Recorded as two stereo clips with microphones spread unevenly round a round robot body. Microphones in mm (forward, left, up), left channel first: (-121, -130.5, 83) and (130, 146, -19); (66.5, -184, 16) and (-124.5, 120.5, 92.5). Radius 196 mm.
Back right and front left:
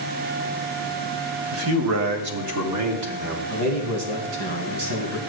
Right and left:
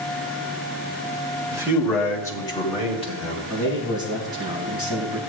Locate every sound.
1.5 s a man speaking: 35° left, 1.5 m; by 3.4 s 10° left, 4 m
3.5 s a man speaking: 40° left, 3 m